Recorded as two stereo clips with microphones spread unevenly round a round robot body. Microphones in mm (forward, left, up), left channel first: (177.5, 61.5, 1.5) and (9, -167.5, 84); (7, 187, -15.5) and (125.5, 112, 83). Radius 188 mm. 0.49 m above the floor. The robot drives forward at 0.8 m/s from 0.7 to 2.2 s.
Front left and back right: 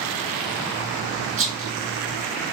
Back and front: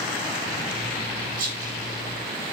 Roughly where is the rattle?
Right.